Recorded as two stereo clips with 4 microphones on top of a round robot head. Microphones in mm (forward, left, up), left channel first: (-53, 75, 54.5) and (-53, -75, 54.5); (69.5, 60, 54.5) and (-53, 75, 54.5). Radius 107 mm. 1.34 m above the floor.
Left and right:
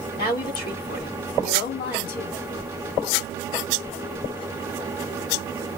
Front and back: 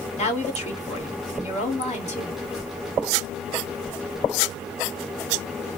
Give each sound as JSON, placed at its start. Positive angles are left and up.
{"t": 0.2, "sound": "a woman speaking", "azimuth_deg": 25, "distance_m": 2.0}